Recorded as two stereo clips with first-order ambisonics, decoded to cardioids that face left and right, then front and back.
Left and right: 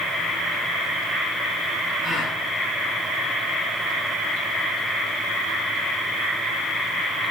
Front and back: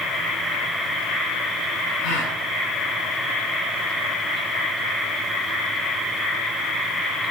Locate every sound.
2.0 s a gasp: straight ahead, 8 m